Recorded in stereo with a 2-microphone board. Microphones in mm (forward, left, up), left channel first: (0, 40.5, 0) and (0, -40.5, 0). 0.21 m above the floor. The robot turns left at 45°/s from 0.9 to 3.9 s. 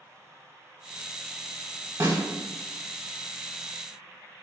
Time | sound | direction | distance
2.0 | a snare drum | 30° right (ahead or behind) | 0.8 m